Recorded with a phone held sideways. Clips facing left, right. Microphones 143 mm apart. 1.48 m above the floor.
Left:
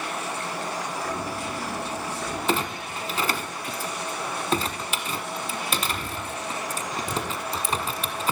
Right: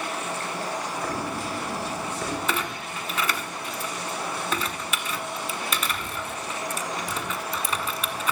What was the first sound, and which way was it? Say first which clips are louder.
Footsteps: right 1 dB; 70° right (ahead or behind).